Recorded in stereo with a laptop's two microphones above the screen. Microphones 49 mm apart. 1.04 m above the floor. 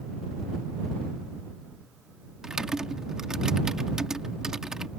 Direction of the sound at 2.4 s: 15° right (ahead or behind).